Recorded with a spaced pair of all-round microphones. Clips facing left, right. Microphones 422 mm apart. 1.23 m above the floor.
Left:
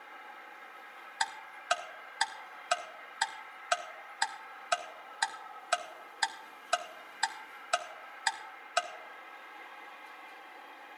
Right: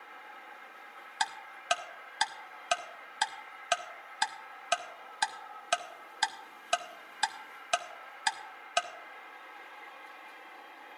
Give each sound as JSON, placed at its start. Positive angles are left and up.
{"t": 1.2, "sound": "ticking", "side_deg": -50, "distance_m": 0.6}